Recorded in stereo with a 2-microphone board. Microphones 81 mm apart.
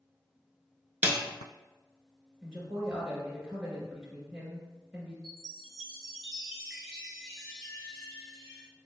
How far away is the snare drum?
About 0.5 m.